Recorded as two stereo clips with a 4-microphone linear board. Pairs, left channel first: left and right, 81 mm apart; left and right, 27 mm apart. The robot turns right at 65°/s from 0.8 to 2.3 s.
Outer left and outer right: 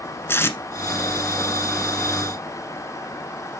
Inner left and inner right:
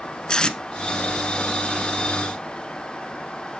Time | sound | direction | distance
0.3 | tape being pulled | 35° left (ahead or behind) | 0.9 m